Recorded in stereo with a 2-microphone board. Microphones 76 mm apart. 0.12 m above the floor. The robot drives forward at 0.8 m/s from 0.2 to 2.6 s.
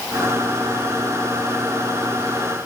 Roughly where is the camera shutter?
I don't hear a camera shutter.